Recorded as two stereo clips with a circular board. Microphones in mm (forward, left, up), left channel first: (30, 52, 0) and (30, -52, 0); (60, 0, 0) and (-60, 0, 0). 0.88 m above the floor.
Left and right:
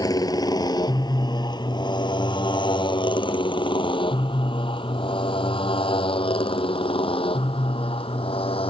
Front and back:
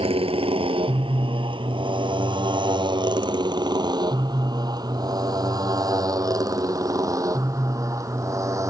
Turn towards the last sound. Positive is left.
turn(degrees=115)